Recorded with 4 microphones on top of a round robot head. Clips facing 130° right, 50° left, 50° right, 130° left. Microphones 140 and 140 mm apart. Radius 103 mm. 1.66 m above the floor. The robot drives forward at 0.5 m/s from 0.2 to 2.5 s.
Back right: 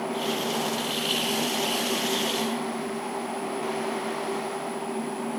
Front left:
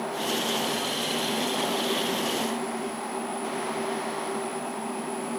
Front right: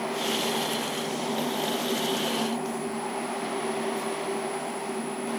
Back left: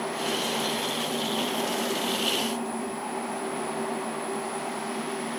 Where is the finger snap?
No finger snap in this recording.